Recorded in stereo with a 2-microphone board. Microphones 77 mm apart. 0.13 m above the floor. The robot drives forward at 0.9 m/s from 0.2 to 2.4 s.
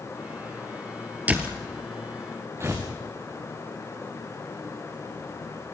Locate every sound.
1.3 s a door slam: 20° right (ahead or behind), 1.9 m; by 1.6 s 15° right (ahead or behind), 2 m
2.6 s tearing paper: 35° right (ahead or behind), 4.5 m